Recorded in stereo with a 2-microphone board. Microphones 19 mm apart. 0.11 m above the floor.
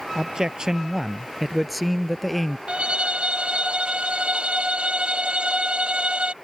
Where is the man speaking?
45° right (ahead or behind); by 2.6 s 15° left (ahead or behind).